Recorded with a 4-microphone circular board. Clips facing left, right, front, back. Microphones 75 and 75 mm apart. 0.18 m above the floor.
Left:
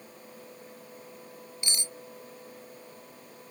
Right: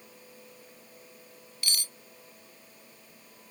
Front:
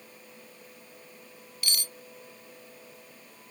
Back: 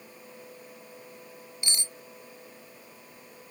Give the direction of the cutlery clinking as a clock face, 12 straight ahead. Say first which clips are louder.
Right 1 dB, front 1 dB; 7 o'clock.